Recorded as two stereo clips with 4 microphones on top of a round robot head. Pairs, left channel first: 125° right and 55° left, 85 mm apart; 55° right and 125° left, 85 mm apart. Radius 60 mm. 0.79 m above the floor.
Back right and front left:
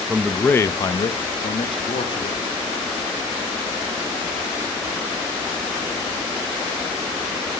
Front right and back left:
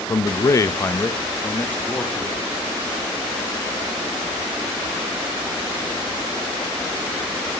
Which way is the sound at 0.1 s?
25° right.